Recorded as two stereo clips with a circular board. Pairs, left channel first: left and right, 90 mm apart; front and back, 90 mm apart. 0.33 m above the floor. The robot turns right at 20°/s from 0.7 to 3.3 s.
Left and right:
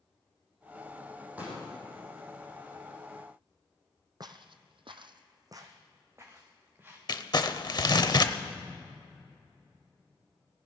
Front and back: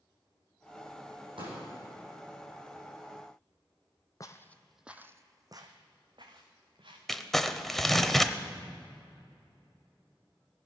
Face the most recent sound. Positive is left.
turn(degrees=85)